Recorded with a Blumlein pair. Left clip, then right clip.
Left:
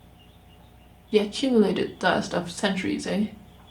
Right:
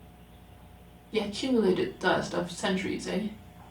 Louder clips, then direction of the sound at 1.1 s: Left 7 dB; 25° left.